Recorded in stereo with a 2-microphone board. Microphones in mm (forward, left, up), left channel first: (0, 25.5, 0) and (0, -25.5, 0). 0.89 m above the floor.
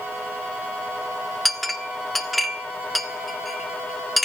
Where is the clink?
Centre (ahead or behind), 1.7 m.